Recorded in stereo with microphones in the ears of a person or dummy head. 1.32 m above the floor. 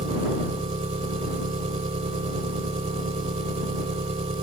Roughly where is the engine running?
Right.